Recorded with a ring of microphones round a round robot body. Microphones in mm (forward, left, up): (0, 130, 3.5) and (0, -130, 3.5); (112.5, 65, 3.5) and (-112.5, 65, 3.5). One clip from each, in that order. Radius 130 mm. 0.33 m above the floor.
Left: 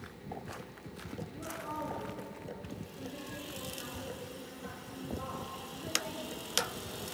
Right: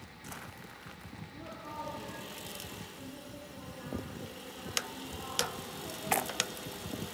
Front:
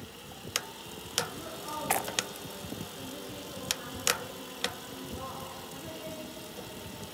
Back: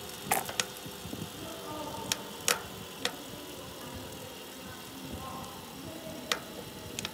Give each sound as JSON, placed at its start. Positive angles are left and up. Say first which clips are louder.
{"t": 1.3, "sound": "a woman speaking", "louder": "left 2 dB, front 2 dB", "azimuth_deg": 25, "distance_m": 4.5}